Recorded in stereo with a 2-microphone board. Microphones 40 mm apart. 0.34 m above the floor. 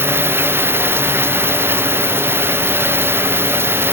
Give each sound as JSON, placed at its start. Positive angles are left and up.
{"t": 0.0, "sound": "running water", "side_deg": -85}